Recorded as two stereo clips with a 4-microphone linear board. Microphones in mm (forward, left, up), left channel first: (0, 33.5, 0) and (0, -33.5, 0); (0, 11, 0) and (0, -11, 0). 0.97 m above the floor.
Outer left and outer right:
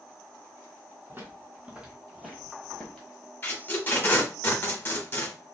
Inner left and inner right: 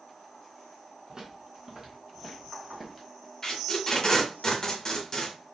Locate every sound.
1.1 s footsteps: 35° right (ahead or behind), 1.6 m; by 3.1 s 20° left (ahead or behind), 1.3 m
3.4 s tape being pulled: 30° left (ahead or behind), 1.0 m